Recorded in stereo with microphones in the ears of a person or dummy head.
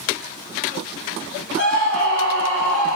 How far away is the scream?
About 2.5 m.